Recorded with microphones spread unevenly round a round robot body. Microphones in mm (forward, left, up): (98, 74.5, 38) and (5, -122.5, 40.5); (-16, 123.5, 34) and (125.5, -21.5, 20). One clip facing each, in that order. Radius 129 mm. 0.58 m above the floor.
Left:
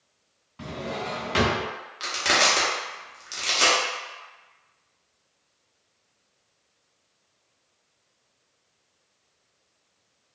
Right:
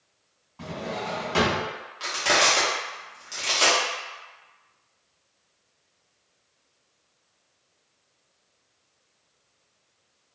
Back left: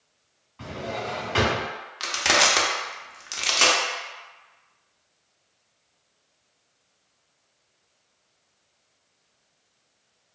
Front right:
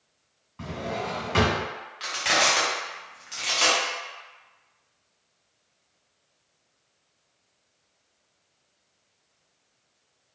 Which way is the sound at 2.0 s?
125° left.